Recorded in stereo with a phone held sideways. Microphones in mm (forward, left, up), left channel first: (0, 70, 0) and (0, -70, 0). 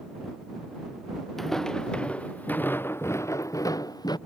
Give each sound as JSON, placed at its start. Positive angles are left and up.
{"t": 1.4, "sound": "footsteps", "side_deg": 5}